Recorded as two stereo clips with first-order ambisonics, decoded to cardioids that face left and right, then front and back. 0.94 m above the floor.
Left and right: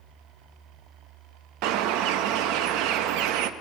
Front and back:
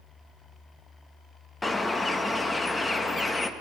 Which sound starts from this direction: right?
A bird, at 1.6 s.